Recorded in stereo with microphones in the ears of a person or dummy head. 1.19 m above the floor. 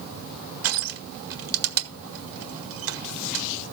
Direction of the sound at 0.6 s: 75° right (ahead or behind).